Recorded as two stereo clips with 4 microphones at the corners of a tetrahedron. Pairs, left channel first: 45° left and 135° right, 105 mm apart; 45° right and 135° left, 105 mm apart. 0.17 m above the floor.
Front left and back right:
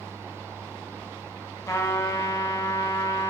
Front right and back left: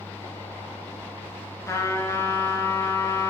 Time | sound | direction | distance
1.7 | a trumpet | straight ahead | 0.6 m